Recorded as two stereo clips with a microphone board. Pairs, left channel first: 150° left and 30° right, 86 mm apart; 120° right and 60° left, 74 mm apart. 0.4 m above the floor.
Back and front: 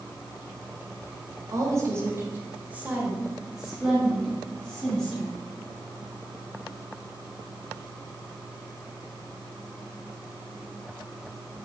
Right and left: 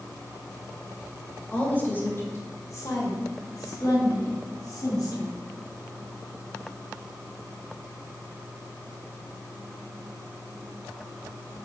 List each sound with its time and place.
1.5 s a woman speaking: 55° right, 1.8 m; by 5.4 s 130° right, 3.5 m